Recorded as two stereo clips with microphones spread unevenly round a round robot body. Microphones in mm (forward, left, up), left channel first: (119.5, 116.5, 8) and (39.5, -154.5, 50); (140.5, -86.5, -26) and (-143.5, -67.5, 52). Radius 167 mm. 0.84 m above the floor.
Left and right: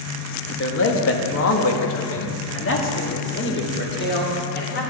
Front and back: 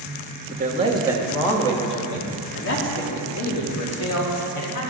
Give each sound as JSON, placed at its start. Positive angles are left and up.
{"t": 0.5, "sound": "a man speaking", "azimuth_deg": 110, "distance_m": 1.4}